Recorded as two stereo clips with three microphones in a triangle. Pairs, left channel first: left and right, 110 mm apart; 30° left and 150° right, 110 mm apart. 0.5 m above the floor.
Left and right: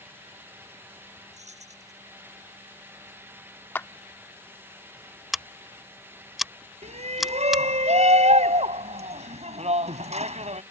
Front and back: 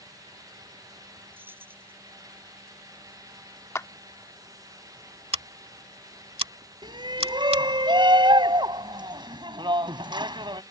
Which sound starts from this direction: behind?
Scissors, at 5.3 s.